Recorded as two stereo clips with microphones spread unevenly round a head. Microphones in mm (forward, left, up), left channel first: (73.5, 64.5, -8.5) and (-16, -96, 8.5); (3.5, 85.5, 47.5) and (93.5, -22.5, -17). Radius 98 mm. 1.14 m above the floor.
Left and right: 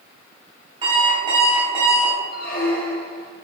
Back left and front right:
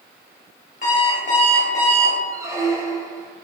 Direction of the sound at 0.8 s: 175° left.